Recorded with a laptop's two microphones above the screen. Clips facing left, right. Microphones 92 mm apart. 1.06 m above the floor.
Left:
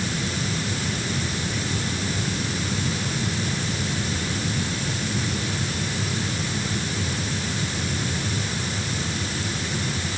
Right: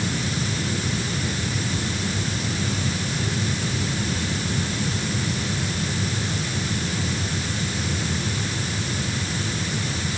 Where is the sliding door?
No sliding door in this recording.